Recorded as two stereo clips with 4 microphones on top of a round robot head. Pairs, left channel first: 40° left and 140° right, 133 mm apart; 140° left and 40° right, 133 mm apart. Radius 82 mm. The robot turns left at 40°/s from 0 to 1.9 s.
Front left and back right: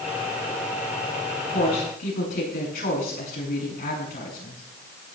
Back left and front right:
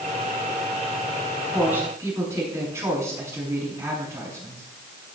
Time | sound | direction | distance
1.5 | a woman speaking | 45° left | 7 m